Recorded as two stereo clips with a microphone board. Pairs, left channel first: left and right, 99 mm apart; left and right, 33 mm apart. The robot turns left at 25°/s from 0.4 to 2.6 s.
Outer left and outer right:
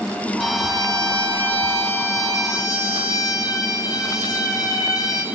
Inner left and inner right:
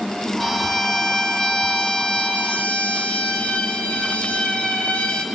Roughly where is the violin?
Behind.